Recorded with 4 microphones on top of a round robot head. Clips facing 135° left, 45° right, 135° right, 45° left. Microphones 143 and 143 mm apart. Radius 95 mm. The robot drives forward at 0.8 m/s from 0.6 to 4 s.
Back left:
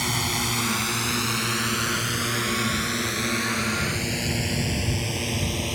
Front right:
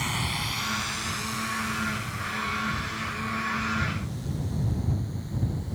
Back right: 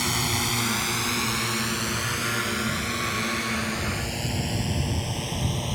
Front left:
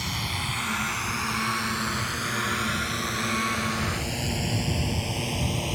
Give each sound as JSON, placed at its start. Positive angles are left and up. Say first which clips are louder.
{"t": 0.0, "sound": "a drone", "louder": "back left 4 dB, back right 5 dB", "azimuth_deg": -175}